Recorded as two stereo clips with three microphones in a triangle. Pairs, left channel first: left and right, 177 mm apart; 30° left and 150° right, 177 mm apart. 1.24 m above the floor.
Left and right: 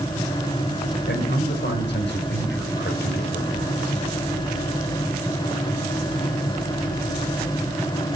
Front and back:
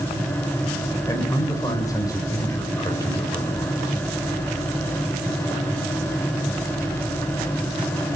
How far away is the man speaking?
About 5 m.